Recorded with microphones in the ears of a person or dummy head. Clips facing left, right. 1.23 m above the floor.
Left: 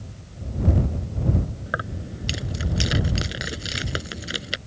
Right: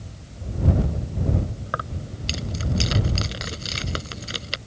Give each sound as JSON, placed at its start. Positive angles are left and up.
{"t": 1.7, "sound": "keys jangling", "side_deg": 15}